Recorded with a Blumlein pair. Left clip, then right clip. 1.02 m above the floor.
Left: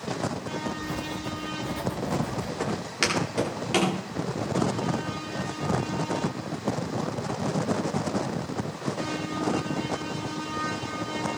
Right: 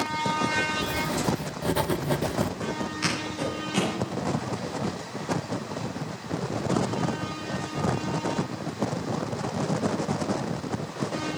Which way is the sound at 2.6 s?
55° left.